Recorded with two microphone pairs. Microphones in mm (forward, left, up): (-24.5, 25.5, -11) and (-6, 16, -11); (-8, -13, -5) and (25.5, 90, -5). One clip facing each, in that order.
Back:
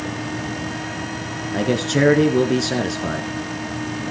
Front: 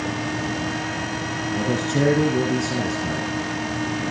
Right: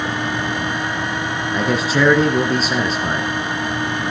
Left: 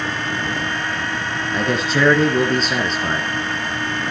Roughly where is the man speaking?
Behind.